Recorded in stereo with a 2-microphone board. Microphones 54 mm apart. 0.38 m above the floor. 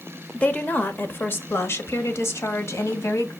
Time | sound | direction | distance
0.3 | a woman speaking | 25° left (ahead or behind) | 0.9 m